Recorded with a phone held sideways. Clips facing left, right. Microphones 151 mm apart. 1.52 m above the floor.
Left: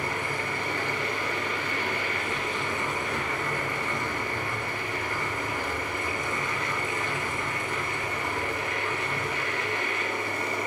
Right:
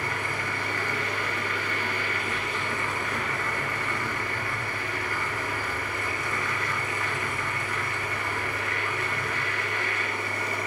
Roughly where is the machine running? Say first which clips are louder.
Left 1 dB; left.